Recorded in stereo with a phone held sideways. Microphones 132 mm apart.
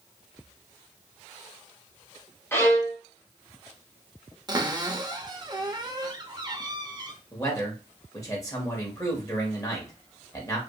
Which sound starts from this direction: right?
A cupboard door, at 4.5 s.